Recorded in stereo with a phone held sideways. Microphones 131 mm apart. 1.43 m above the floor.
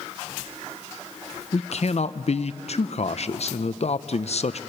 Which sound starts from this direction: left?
A man speaking, at 1.5 s.